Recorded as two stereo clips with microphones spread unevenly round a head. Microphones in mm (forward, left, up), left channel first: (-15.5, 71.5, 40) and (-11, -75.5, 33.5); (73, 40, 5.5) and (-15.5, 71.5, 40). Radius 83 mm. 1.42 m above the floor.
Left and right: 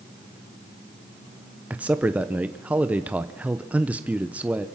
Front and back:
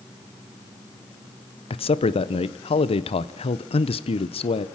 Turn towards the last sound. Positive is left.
turn(degrees=-5)